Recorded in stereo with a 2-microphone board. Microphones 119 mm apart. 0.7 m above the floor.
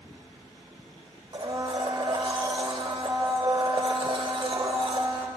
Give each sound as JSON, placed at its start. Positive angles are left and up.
{"t": 1.3, "sound": "a blender", "side_deg": -45, "distance_m": 0.7}